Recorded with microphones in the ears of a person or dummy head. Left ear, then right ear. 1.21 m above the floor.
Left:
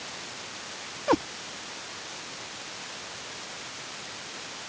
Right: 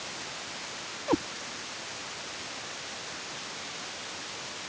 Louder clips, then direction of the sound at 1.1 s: Left 4 dB; 50° left (ahead or behind).